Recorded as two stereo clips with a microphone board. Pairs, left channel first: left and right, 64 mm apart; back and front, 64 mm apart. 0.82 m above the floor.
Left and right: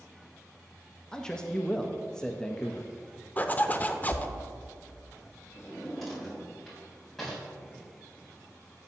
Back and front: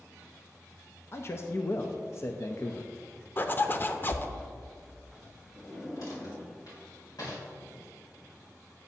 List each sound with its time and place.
1.1 s a man speaking: 165° left, 0.5 m
3.4 s a zipper: 140° left, 0.5 m
5.5 s a drawer: 175° left, 3 m